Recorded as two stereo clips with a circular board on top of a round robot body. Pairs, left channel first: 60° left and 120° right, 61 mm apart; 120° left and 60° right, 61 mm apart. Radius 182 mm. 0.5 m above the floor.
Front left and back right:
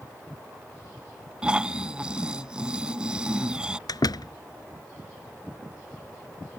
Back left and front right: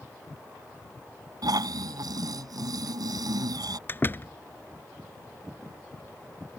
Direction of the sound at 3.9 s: 65° left.